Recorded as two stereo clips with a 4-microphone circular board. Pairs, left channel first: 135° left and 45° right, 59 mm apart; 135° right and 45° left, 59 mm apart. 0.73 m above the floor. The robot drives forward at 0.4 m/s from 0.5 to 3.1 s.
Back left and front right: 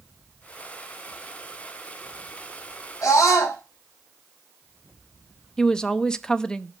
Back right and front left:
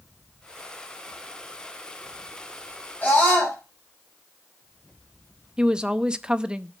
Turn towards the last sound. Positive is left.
turn(degrees=85)